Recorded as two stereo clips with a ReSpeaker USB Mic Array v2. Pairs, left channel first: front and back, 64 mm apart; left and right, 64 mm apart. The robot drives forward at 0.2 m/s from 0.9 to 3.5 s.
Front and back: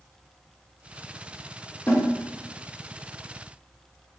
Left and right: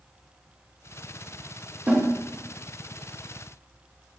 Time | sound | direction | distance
1.9 | a snare drum | 40° right | 0.9 m